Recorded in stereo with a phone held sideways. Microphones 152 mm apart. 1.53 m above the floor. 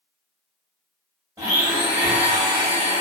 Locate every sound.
1.4 s a blender: 25° right (ahead or behind), 1.1 m